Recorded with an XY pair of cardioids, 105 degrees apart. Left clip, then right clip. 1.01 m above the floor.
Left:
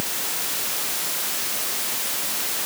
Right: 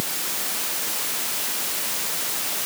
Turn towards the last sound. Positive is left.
No sound to turn to.